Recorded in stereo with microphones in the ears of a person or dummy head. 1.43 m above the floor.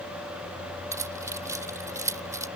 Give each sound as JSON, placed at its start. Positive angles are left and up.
{"t": 0.9, "sound": "keys jangling", "side_deg": -20}